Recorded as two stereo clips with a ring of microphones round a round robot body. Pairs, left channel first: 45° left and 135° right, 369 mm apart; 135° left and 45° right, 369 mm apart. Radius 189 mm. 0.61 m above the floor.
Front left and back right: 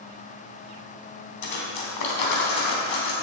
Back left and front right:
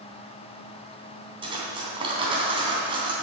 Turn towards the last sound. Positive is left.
turn(degrees=30)